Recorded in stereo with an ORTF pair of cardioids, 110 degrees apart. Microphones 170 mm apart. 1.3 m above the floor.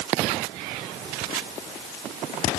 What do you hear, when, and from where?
Only background noise.